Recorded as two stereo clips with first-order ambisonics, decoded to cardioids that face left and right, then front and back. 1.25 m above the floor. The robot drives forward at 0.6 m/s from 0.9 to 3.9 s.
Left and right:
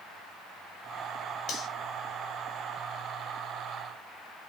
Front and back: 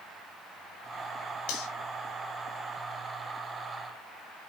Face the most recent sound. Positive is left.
turn(degrees=45)